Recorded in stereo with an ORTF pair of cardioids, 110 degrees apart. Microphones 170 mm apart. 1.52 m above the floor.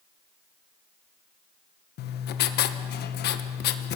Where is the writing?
65° left, 1.4 m.